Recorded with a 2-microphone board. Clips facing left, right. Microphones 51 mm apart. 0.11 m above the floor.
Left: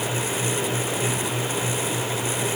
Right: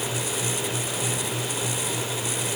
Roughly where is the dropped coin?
I don't hear a dropped coin.